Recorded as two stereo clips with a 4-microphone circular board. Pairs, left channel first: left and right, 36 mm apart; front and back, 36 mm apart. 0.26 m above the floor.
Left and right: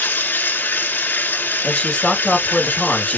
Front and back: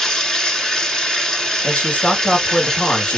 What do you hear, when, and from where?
0.0 s running water: 75° left, 1.2 m
1.6 s a man speaking: 40° left, 3 m